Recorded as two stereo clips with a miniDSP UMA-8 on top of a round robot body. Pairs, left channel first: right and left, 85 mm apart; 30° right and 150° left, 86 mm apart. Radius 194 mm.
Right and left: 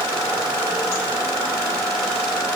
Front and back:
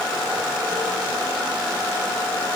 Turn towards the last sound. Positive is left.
No sound to turn to.